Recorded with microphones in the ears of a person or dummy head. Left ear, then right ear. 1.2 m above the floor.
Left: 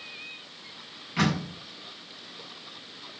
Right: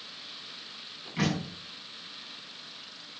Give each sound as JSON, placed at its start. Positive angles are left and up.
{"t": 1.2, "sound": "a door slam", "side_deg": 40, "distance_m": 6.0}